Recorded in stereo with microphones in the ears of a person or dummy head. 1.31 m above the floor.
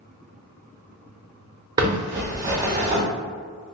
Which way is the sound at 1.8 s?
25° right (ahead or behind).